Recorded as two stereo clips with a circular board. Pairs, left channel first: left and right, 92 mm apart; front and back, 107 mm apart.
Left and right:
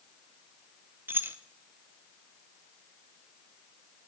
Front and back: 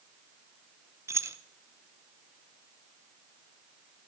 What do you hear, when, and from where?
1.1 s keys jangling: 140° right, 0.6 m